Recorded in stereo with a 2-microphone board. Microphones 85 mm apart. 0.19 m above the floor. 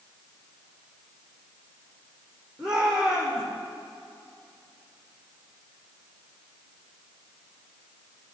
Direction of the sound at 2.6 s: 10° right (ahead or behind).